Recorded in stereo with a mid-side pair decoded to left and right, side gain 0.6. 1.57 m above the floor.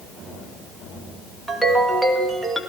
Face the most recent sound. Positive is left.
turn(degrees=-5)